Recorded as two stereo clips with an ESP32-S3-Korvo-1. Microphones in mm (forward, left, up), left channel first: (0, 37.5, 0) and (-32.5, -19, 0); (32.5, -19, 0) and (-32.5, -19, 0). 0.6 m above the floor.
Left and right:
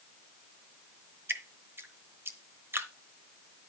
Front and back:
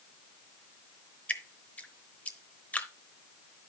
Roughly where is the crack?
No crack in this recording.